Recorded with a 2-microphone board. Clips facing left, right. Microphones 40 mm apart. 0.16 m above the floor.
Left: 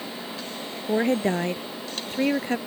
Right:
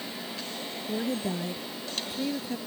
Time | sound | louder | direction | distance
0.9 | a woman speaking | left 9 dB | 60° left (ahead or behind) | ?